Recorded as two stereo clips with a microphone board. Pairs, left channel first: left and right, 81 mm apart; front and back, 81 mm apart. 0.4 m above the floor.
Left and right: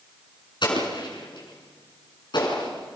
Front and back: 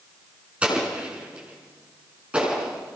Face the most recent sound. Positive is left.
turn(degrees=105)